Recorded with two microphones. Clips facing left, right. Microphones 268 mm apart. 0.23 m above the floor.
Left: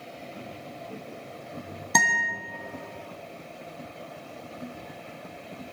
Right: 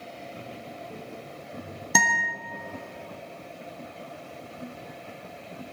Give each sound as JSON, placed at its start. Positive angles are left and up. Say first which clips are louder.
{"t": 0.3, "sound": "footsteps", "louder": "even", "side_deg": -15, "distance_m": 6.0}
{"t": 1.9, "sound": "a guitar", "louder": "right 1 dB", "side_deg": -5, "distance_m": 1.9}